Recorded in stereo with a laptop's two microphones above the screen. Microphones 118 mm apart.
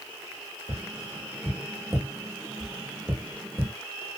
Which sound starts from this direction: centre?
Tapping, at 0.7 s.